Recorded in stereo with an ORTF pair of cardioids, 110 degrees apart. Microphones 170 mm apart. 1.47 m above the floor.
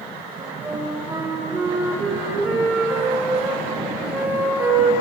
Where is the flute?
10° right, 2 m.